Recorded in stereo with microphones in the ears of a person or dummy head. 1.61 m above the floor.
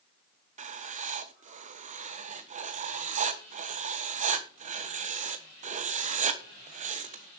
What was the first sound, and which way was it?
Writing, 40° right (ahead or behind).